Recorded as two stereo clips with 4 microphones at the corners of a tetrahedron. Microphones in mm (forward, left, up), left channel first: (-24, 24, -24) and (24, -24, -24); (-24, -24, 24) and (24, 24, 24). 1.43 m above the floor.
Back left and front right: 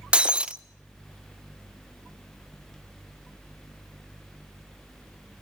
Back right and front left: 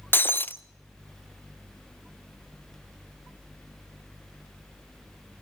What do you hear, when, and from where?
0.1 s breaking glass: 110° right, 0.6 m